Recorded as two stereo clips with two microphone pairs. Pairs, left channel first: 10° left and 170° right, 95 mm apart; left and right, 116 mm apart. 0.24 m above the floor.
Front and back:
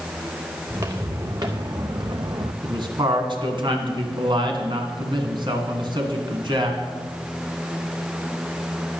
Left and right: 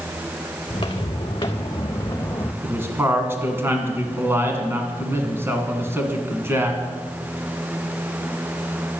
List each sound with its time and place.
0.7 s footsteps: 140° left, 1.9 m; by 2.5 s 160° left, 1.0 m
2.6 s a man speaking: 155° right, 2 m